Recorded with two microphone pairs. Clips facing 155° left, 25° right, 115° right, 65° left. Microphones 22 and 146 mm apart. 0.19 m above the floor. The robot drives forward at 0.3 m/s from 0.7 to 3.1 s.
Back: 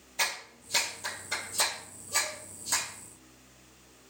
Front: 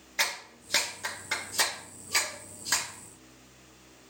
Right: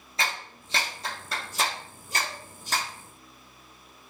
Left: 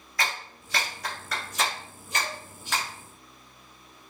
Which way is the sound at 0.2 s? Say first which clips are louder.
Front 1 dB, even; 50° right.